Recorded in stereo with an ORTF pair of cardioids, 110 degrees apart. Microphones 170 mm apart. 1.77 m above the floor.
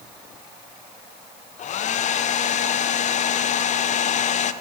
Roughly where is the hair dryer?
Ahead left.